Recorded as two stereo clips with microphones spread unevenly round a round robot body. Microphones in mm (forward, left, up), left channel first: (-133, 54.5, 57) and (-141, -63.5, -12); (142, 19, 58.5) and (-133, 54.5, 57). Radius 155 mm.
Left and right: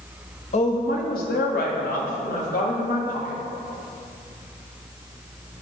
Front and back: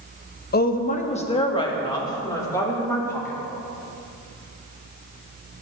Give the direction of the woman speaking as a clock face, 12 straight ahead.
11 o'clock.